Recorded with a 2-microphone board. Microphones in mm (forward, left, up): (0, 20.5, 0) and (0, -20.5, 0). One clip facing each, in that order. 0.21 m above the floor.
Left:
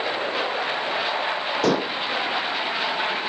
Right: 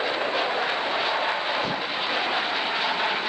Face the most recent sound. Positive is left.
turn(degrees=80)